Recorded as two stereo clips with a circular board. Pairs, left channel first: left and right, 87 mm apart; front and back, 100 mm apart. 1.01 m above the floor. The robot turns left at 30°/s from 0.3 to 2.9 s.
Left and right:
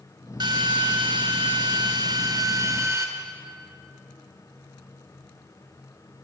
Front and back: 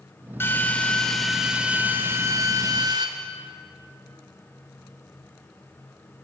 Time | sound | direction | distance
0.4 | a drill | 65° right | 2.5 m